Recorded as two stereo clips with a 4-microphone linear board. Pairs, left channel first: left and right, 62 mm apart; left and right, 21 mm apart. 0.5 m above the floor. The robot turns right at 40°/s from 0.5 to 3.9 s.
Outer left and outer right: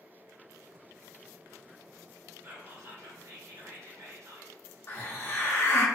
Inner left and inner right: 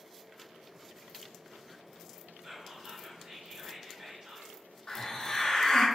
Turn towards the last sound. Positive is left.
turn(degrees=35)  # may be behind; listen again after turning